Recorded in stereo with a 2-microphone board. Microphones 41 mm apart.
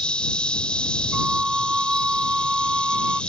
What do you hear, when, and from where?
0.0 s an insect: 25° left (ahead or behind)
1.1 s a flute: 20° right (ahead or behind)